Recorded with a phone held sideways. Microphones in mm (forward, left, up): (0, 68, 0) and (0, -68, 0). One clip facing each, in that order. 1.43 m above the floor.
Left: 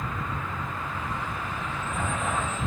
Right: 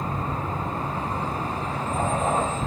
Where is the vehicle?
35° right (ahead or behind).